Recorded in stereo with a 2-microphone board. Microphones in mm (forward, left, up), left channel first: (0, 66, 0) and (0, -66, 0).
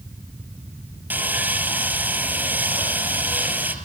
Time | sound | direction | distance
1.1 | sawing | 15° right (ahead or behind) | 4.5 m